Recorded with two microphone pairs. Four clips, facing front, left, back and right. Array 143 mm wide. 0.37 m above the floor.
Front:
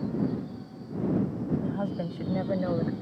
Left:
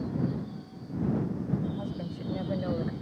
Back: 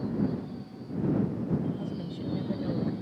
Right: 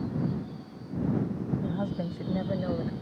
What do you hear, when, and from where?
1.6 s a woman speaking: 25° right; by 2.9 s 15° left